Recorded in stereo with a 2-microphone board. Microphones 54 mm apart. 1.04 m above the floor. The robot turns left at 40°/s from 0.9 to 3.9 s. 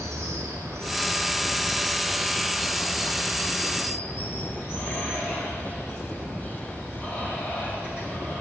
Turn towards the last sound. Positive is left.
turn(degrees=140)